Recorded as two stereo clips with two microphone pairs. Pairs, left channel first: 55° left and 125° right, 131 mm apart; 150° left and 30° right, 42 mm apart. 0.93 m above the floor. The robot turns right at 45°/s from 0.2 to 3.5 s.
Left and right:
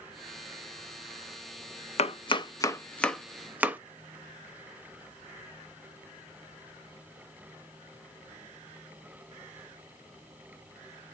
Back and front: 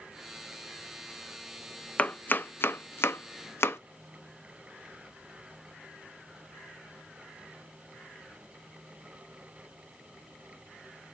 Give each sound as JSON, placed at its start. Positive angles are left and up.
{"t": 2.0, "sound": "chopping", "azimuth_deg": 90, "distance_m": 0.6}